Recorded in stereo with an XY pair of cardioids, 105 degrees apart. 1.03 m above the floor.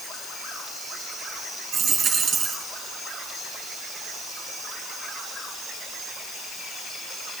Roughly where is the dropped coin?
Ahead right.